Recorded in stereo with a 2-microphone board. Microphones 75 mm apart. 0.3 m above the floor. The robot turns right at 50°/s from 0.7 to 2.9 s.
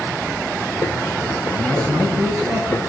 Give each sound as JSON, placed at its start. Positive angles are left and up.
{"t": 1.5, "sound": "a man speaking", "azimuth_deg": -75, "distance_m": 3.5}